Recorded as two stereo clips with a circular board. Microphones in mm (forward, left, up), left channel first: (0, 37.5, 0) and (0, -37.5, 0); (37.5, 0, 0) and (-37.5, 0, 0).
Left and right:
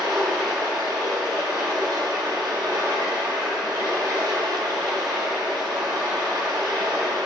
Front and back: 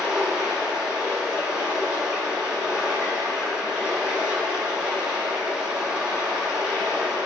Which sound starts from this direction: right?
Running water, at 0.0 s.